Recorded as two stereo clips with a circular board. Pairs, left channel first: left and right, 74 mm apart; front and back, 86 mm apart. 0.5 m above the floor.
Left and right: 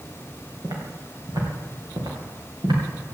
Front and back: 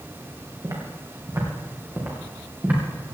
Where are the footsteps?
130° right, 6 m; by 2.8 s 110° right, 7 m.